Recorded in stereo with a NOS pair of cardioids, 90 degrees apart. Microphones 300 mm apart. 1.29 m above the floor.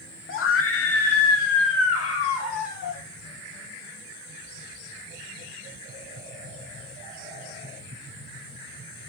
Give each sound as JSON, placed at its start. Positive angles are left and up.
{"t": 0.3, "sound": "a scream", "azimuth_deg": 45, "distance_m": 0.9}